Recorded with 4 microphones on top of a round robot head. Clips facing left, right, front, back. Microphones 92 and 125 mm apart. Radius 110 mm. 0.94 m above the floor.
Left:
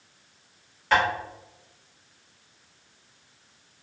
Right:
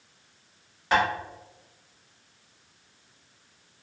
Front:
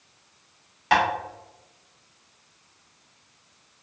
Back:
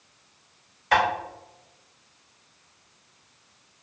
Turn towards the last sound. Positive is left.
turn(degrees=-10)